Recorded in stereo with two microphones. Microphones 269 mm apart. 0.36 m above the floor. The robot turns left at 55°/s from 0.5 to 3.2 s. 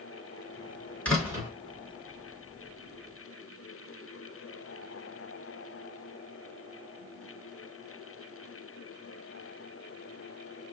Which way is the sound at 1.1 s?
5° left (ahead or behind).